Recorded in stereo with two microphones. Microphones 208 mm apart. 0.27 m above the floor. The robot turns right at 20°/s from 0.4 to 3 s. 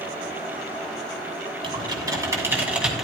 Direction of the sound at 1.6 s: 25° right (ahead or behind).